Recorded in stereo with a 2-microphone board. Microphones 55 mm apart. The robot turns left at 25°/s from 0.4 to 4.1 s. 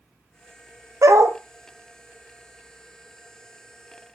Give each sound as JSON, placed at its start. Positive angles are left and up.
{"t": 1.0, "sound": "a dog barking", "side_deg": -70, "distance_m": 1.3}